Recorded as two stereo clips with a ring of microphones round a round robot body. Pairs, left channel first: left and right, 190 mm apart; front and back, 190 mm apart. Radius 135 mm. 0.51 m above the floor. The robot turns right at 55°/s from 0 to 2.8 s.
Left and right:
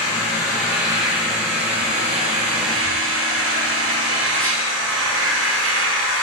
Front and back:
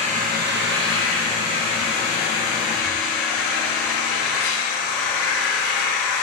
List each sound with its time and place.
0.0 s an engine running: 120° left, 3 m; by 6.2 s 85° right, 3 m